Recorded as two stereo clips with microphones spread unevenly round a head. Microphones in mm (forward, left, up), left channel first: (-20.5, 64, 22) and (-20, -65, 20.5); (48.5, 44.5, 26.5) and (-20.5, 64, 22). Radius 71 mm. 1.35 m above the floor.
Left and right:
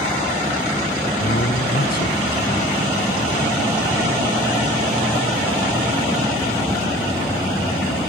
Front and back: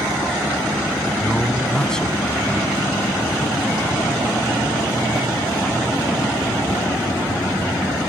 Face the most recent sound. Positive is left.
turn(degrees=65)